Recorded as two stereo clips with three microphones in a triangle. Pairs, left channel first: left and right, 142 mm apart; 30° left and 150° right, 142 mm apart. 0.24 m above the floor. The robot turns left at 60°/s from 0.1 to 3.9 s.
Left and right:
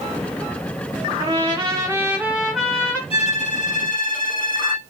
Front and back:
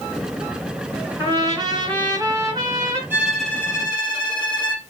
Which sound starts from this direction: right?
A trumpet, at 1.2 s.